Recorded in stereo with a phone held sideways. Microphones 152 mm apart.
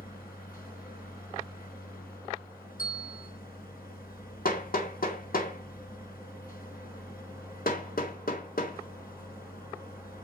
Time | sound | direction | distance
0.0 | a machine running | 80° left | 4.5 m
2.8 | a bell | 65° left (ahead or behind) | 3.5 m
4.5 | hammering | 75° left (ahead or behind) | 2 m